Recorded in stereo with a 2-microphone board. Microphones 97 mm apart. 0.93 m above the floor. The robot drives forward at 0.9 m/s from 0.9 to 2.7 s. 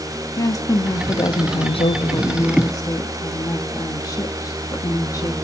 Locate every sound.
0.4 s a woman speaking: 40° left (ahead or behind), 1.1 m